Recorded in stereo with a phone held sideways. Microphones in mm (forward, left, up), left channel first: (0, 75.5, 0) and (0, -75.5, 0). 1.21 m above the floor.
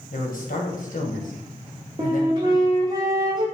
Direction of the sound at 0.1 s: 65° left (ahead or behind).